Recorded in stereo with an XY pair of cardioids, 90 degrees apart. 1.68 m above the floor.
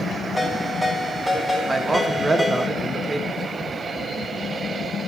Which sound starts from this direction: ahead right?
A man speaking, at 1.7 s.